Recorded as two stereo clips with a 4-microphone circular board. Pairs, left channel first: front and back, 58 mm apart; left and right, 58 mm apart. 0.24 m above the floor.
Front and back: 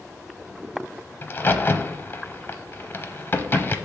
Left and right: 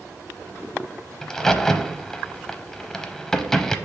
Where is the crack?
10° left, 0.6 m.